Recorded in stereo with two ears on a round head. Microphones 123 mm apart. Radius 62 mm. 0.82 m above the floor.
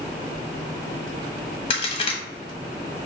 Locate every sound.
1.7 s a crack: 40° left (ahead or behind), 1.0 m